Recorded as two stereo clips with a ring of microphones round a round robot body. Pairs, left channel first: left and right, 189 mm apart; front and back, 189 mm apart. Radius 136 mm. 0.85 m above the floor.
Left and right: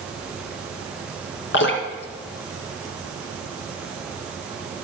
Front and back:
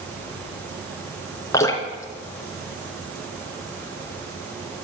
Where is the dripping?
75° left, 3 m.